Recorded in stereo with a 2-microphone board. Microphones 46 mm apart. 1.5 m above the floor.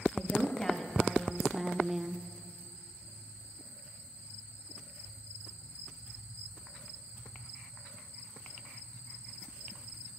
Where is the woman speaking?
15° left (ahead or behind), 3 m; by 2.2 s 25° right (ahead or behind), 0.7 m.